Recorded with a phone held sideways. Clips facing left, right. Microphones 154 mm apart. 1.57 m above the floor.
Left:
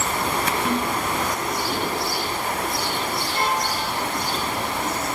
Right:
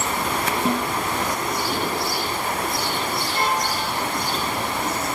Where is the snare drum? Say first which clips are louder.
Right 2 dB; 30° right (ahead or behind), 8.5 m.